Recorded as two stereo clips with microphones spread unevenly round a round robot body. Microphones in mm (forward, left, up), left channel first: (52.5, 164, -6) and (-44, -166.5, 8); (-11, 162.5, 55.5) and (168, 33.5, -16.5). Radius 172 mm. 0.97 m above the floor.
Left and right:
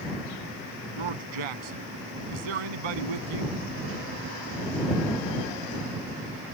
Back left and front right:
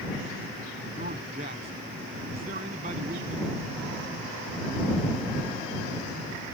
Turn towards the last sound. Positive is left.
turn(degrees=-105)